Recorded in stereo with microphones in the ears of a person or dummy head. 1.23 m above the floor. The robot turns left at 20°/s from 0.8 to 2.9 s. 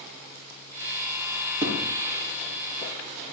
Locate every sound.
1.6 s a thud: 15° right (ahead or behind), 4 m; by 1.9 s 10° right (ahead or behind), 4 m